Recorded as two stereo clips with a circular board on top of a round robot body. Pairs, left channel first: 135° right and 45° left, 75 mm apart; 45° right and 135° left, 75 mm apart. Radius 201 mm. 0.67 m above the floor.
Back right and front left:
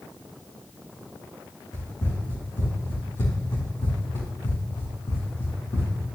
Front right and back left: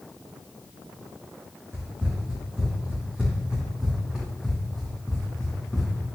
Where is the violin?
No violin in this recording.